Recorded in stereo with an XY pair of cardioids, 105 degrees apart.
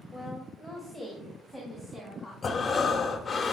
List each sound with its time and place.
0.1 s a woman speaking: 5° right, 1.4 m; by 2.3 s 5° left, 4.5 m
2.4 s breathing: 35° left, 1.1 m